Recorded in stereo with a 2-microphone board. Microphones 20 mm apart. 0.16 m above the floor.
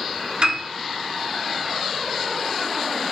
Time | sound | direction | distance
0.4 | a piano | 60° right (ahead or behind) | 0.9 m